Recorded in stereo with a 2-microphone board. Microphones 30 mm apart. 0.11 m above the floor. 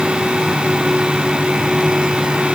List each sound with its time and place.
Only background noise.